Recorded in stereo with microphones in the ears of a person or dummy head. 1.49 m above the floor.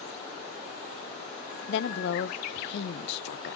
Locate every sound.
1.7 s a woman speaking: 70° left (ahead or behind), 0.9 m